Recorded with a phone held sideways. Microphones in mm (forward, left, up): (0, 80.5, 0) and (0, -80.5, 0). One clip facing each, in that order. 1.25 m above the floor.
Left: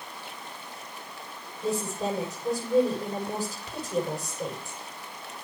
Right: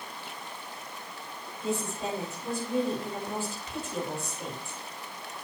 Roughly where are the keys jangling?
I don't hear keys jangling.